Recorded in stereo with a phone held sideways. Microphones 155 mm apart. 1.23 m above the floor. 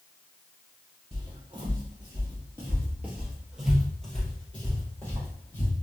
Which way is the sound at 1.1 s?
35° right (ahead or behind).